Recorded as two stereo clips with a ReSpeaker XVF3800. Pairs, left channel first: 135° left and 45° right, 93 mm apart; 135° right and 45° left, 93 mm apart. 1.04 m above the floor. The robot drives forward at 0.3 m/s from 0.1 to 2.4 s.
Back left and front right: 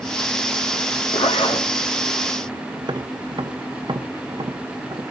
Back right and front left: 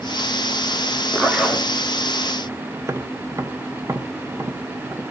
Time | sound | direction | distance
1.1 | a zipper | 125° left | 2.5 m
2.8 | tapping | 10° right | 1.3 m